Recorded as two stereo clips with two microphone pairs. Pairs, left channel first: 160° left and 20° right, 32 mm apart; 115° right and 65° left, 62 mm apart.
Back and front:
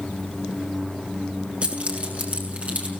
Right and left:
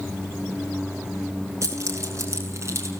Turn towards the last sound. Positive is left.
turn(degrees=20)